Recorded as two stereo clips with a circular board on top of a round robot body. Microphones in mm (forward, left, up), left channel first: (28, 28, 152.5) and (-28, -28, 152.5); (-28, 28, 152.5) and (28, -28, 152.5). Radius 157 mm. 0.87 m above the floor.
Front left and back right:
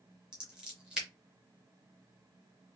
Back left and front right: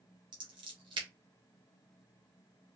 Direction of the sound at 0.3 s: 55° right.